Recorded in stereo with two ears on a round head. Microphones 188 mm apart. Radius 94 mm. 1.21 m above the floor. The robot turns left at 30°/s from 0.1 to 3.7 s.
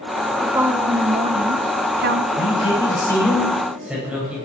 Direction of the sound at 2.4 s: 35° left.